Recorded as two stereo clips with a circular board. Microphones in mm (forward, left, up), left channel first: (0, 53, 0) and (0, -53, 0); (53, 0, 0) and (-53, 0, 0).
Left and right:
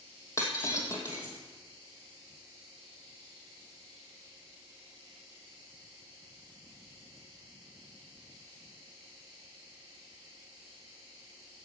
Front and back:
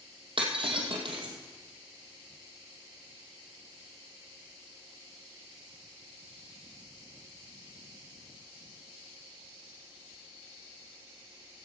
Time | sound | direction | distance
0.4 | breaking glass | 150° left | 2.5 m